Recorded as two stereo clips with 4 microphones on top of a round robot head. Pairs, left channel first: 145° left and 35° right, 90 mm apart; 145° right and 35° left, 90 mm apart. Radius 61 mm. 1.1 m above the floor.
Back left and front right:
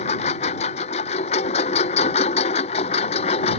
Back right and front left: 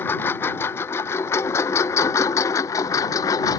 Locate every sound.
0.0 s a lawn mower: 145° left; by 3.6 s 160° left